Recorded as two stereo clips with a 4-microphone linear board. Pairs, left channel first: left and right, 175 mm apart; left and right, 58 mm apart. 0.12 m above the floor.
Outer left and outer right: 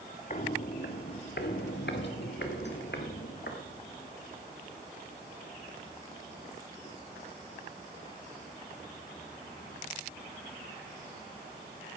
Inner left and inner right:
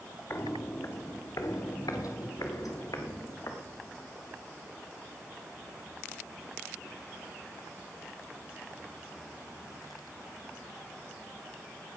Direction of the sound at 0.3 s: 45° left (ahead or behind).